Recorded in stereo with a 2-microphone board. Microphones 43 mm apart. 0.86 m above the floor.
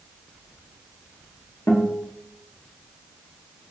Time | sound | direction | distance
1.7 | a guitar | 80° left | 0.7 m